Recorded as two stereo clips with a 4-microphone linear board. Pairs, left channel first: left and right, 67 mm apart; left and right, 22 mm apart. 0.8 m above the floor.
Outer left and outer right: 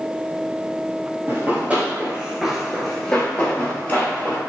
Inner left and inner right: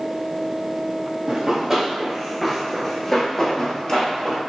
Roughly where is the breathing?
No breathing in this recording.